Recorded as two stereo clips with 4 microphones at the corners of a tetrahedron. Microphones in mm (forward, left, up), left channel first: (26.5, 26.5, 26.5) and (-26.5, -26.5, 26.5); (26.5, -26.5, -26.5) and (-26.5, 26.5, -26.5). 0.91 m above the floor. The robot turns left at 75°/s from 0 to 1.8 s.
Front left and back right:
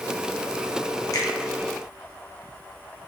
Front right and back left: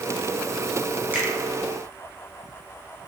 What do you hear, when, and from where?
1.1 s a finger snap: 75° left, 0.7 m; by 1.3 s 65° left, 0.7 m